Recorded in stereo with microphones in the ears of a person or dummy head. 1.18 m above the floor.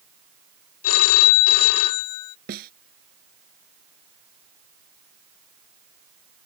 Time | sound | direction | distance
0.8 | a phone ringing | 80° left | ?
2.5 | a snare drum | 55° right (ahead or behind) | ?